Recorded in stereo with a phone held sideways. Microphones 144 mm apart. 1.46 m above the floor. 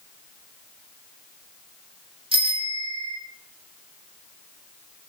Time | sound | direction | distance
2.3 | a bicycle bell | 40° right (ahead or behind) | 5 m